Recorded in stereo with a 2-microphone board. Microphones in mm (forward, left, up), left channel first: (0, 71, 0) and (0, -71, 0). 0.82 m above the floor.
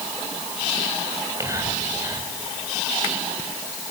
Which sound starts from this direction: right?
Whispering, at 1.1 s.